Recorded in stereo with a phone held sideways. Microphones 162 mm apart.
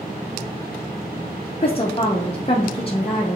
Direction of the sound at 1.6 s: 35° left (ahead or behind).